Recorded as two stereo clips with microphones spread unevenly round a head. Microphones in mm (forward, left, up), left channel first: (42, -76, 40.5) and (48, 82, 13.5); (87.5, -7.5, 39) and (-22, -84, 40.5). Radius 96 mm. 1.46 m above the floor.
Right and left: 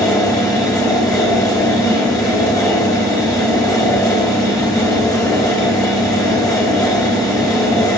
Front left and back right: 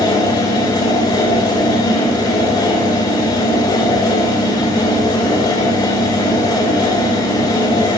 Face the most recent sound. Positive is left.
turn(degrees=-20)